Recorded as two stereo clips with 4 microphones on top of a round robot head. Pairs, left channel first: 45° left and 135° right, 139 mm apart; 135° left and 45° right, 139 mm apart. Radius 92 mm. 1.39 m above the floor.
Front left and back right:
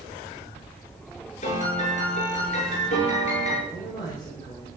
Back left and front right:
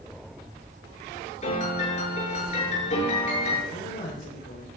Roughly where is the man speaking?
Left.